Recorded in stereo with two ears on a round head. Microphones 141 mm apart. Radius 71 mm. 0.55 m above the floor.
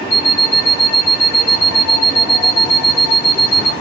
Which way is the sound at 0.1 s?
55° left (ahead or behind).